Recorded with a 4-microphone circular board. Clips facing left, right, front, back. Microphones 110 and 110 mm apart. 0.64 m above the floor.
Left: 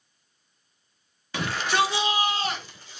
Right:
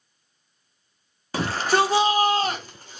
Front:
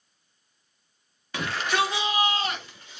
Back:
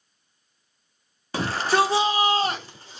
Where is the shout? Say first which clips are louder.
Right 4 dB, back 5 dB; 135° right, 1.0 m; by 3.0 s 125° right, 1.8 m.